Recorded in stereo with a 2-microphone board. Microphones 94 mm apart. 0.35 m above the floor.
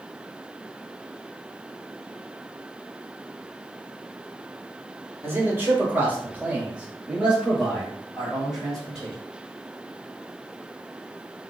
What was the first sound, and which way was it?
A man speaking, 25° right (ahead or behind).